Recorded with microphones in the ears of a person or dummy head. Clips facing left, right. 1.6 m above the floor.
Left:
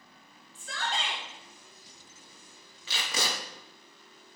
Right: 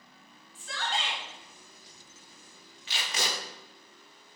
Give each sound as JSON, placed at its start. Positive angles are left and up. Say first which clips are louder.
{"t": 0.6, "sound": "a shout", "louder": "even", "side_deg": 90, "distance_m": 4.5}
{"t": 2.9, "sound": "tape being pulled", "louder": "left 1 dB", "side_deg": 80, "distance_m": 1.4}